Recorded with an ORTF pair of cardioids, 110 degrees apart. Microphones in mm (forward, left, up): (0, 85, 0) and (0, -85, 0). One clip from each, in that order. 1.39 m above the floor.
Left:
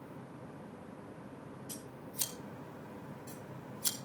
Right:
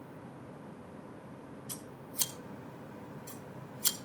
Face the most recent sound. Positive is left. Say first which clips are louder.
# right 2 dB
turn(degrees=-20)